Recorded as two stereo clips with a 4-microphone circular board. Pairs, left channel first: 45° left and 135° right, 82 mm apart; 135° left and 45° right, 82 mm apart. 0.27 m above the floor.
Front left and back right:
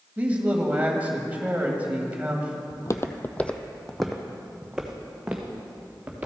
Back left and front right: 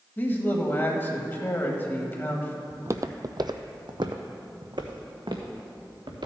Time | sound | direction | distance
0.2 | a man speaking | 170° left | 1.4 m
2.7 | footsteps | 10° left | 0.5 m